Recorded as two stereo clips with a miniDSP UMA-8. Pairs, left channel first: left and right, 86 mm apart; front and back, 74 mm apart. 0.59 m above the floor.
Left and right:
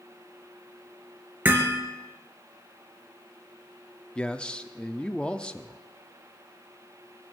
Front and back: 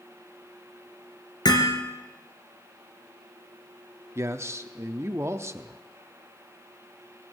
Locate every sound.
1.4 s hammering: 25° right, 2.5 m
4.2 s a man speaking: 160° left, 0.7 m